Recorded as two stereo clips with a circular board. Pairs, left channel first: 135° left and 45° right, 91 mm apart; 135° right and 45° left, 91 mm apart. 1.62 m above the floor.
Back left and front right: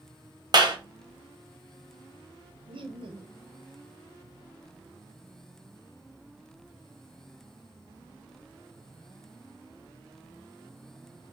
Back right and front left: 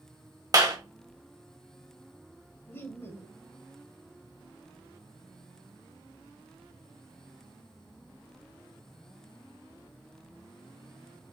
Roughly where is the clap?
Ahead.